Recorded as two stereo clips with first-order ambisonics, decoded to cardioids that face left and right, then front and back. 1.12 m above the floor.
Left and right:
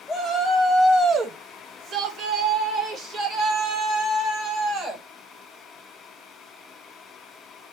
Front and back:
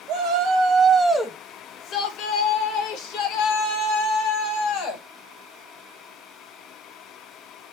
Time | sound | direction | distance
0.1 | a shout | 175° right | 0.7 m